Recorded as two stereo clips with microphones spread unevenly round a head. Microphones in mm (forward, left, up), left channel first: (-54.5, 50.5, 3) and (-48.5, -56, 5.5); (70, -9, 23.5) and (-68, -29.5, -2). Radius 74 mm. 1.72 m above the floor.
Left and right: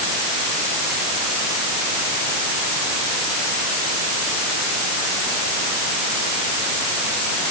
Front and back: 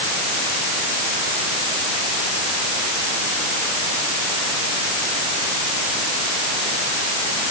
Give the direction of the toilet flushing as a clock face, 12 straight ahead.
No toilet flushing in this recording.